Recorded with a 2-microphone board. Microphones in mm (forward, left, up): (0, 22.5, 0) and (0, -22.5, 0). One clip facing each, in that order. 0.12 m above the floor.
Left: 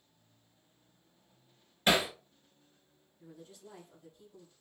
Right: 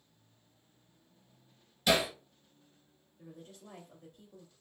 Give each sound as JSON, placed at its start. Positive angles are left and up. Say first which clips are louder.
{"t": 1.9, "sound": "hammering", "louder": "left 1 dB", "side_deg": 40, "distance_m": 1.2}
{"t": 3.2, "sound": "a woman speaking", "louder": "right 1 dB", "side_deg": -60, "distance_m": 2.5}